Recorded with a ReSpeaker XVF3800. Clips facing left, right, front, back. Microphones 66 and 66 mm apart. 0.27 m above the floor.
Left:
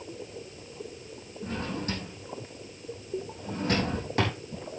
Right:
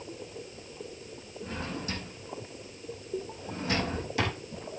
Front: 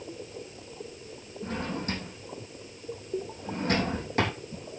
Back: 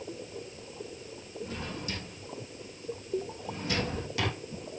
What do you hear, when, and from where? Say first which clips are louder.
1.4 s a drawer: left 3 dB, front 6 dB; 45° left, 5 m